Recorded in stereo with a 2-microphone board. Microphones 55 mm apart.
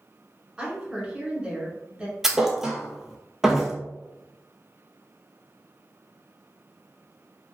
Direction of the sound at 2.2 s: 10° right (ahead or behind).